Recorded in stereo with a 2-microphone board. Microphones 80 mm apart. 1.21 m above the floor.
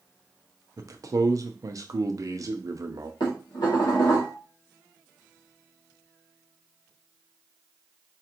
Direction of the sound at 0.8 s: 50° right (ahead or behind).